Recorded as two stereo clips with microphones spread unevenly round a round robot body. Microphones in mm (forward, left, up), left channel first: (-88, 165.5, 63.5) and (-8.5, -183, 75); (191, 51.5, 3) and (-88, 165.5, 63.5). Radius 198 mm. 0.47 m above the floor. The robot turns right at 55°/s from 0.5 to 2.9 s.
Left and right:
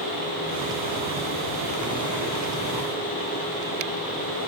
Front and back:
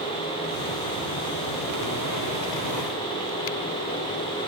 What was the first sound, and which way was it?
Only background noise.